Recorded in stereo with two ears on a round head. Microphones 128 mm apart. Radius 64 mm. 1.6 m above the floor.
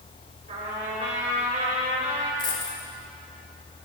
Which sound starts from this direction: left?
A dropped coin, at 2.4 s.